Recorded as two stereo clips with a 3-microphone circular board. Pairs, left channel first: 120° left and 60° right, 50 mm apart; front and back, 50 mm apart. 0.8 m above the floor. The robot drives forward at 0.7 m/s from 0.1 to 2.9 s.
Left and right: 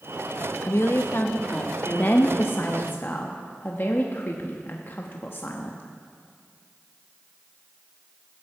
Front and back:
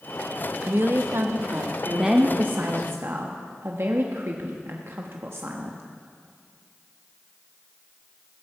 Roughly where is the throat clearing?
I don't hear throat clearing.